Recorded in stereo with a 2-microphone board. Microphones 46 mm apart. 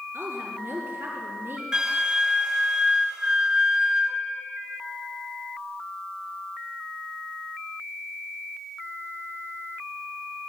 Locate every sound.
0.1 s a woman speaking: 65° right (ahead or behind), 4.5 m
1.7 s a flute: 15° right (ahead or behind), 1.3 m